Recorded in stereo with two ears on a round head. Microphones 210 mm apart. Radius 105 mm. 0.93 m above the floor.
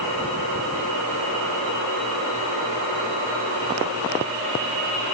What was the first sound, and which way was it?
Only background noise.